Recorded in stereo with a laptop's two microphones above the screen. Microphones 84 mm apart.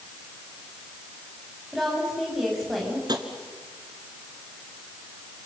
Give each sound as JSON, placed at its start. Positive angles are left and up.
{"t": 1.7, "sound": "a woman speaking", "side_deg": 0, "distance_m": 6.5}
{"t": 3.1, "sound": "tapping", "side_deg": -55, "distance_m": 2.5}